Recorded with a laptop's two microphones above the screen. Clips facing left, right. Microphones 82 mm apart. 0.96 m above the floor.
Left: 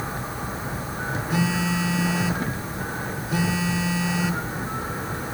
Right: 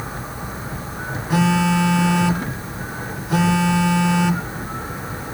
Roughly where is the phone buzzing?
Right.